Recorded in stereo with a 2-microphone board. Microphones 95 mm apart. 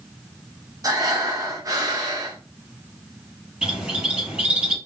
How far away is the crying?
I don't hear crying.